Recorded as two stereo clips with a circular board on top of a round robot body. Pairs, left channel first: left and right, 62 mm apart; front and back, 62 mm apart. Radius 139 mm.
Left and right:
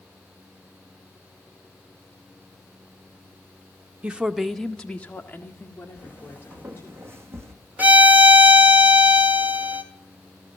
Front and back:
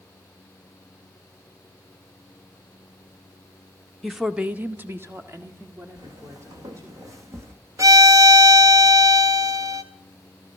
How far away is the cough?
I don't hear a cough.